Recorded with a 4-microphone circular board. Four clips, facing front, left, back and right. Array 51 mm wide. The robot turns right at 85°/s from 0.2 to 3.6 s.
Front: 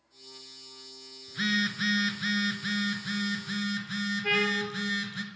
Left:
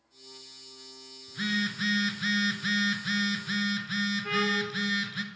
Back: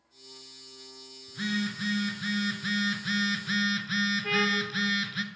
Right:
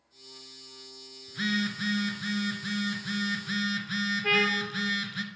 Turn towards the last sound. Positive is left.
turn(degrees=-75)